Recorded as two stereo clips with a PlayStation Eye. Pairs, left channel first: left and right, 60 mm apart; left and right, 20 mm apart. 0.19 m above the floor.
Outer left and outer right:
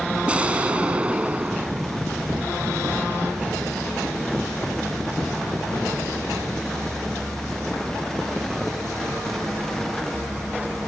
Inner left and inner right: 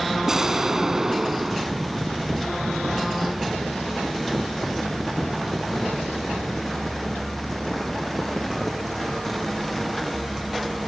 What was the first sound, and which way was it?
An explosion, 25° right (ahead or behind).